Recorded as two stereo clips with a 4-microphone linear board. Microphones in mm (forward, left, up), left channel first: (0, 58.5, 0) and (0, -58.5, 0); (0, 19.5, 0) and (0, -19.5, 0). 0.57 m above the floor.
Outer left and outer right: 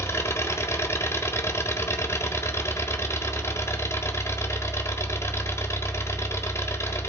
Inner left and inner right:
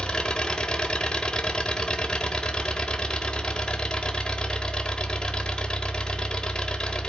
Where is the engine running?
25° left (ahead or behind), 1.1 m.